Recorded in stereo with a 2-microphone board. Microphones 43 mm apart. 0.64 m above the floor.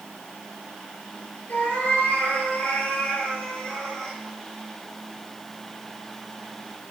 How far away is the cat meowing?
About 6.5 m.